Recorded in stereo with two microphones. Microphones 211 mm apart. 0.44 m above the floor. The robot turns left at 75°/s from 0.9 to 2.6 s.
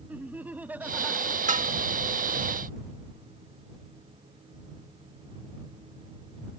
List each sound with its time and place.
0.1 s laughter: 170° right; by 1.4 s 150° left
1.5 s dishes clattering: 35° right (ahead or behind); by 1.7 s 45° right (ahead or behind)